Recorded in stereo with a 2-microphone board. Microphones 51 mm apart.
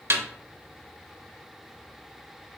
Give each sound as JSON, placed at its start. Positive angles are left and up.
{"t": 0.1, "sound": "a snare drum", "side_deg": -55, "distance_m": 0.5}